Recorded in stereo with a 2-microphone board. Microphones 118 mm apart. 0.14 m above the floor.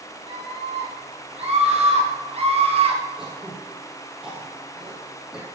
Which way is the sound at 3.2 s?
5° right (ahead or behind).